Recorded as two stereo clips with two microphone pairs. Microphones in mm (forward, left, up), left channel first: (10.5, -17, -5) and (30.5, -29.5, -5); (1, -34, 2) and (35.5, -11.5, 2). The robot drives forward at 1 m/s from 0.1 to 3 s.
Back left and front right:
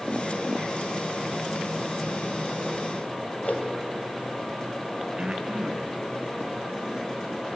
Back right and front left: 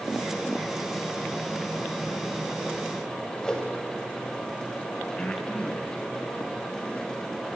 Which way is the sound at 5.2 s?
85° right.